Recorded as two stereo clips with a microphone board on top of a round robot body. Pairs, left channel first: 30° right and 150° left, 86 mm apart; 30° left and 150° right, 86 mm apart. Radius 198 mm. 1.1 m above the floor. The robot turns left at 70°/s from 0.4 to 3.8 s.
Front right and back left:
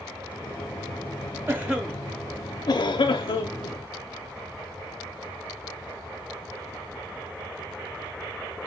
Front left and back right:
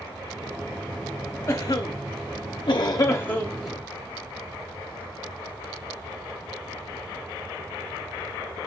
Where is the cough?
90° left, 0.5 m; by 3.8 s 70° right, 0.5 m.